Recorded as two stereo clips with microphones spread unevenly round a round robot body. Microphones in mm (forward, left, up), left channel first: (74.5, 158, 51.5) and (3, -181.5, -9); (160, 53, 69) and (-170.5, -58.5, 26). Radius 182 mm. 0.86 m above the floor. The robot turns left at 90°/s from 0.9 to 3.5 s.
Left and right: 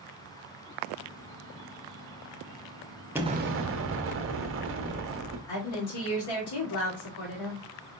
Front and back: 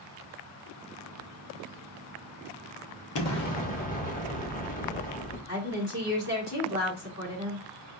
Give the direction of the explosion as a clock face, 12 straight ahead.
1 o'clock.